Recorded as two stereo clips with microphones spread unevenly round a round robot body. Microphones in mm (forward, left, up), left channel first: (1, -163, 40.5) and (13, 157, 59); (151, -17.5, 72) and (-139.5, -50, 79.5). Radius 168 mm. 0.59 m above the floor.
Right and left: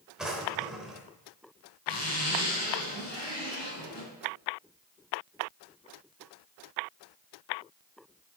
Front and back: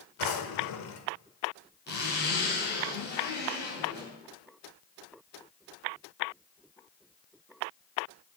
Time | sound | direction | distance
0.2 | a drawer | straight ahead | 1.0 m
1.9 | a zipper | 50° right | 3.5 m